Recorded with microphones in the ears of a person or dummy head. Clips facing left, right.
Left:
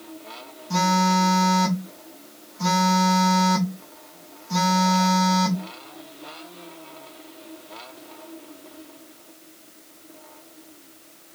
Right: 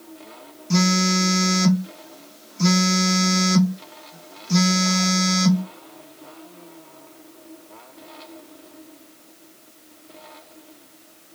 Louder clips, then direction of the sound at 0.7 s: Right 1 dB; 25° right (ahead or behind).